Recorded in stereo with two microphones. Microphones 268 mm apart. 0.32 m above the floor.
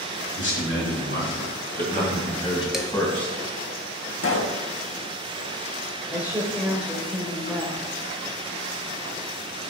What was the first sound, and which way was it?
A man speaking, 55° left (ahead or behind).